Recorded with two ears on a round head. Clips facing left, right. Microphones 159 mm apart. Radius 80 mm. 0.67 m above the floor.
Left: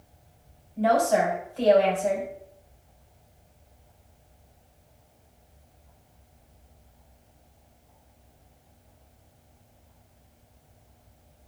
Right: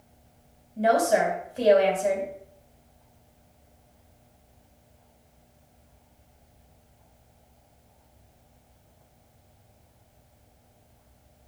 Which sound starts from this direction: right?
A woman speaking, at 0.8 s.